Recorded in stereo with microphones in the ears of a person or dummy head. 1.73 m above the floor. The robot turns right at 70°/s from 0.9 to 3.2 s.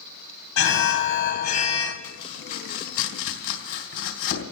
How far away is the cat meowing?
I don't hear a cat meowing.